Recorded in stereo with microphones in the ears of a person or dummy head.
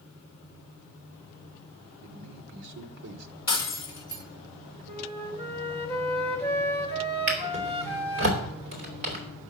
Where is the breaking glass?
20° left (ahead or behind), 1.3 m.